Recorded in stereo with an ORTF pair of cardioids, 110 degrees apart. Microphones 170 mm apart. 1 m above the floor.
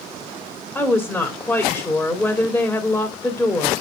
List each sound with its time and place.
0.8 s a woman speaking: 5° left, 2.5 m